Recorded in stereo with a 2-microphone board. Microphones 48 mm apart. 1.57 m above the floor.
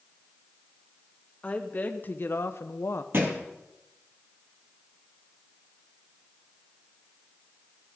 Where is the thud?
50° right (ahead or behind), 2.5 m.